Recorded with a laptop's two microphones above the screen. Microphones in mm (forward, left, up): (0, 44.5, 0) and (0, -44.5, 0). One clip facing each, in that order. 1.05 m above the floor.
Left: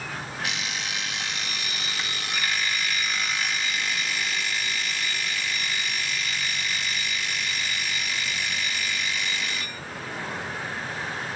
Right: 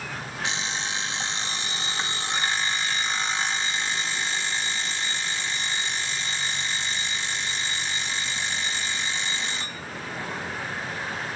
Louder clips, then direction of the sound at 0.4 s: Right 4 dB; 30° right (ahead or behind).